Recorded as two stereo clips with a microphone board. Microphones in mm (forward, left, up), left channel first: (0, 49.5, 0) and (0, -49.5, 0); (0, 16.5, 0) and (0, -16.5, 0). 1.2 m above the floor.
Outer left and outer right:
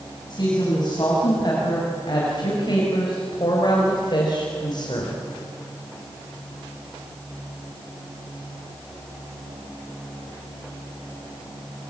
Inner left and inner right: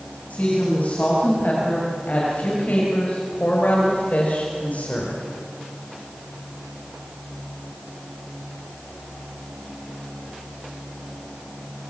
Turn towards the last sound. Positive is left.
turn(degrees=50)  # may be behind; listen again after turning